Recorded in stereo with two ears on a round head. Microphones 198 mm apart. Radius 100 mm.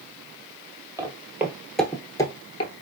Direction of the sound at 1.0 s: 15° right (ahead or behind).